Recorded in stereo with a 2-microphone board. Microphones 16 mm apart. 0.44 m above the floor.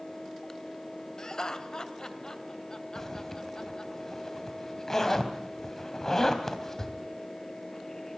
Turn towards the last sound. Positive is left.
turn(degrees=30)  # may be behind; listen again after turning